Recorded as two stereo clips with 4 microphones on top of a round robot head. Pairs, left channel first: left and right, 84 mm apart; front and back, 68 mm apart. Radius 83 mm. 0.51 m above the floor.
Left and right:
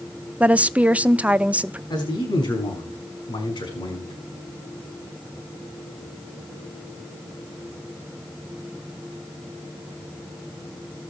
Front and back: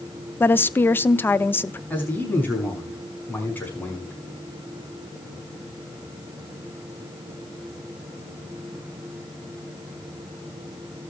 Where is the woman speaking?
25° right, 0.8 m.